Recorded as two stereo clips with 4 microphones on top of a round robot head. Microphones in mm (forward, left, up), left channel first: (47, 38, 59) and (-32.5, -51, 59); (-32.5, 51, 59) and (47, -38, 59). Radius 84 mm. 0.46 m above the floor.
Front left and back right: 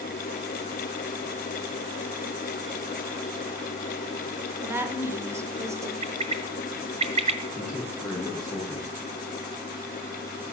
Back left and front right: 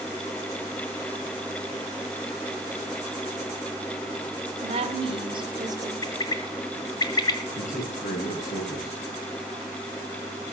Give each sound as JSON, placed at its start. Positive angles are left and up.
{"t": 4.6, "sound": "a woman speaking", "azimuth_deg": -65, "distance_m": 2.5}
{"t": 6.0, "sound": "a bird", "azimuth_deg": -170, "distance_m": 1.4}
{"t": 7.5, "sound": "a man speaking", "azimuth_deg": 130, "distance_m": 6.5}